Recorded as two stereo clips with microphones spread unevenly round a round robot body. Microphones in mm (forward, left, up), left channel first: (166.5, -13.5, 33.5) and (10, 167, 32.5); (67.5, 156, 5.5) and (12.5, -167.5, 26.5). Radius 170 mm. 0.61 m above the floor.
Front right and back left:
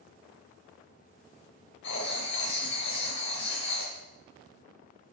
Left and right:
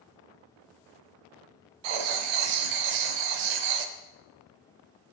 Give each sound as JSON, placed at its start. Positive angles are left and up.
{"t": 1.8, "sound": "writing", "azimuth_deg": -110, "distance_m": 0.8}